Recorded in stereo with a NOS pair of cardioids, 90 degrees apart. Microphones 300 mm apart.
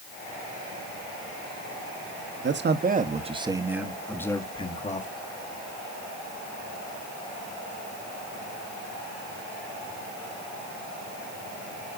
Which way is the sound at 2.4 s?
40° right.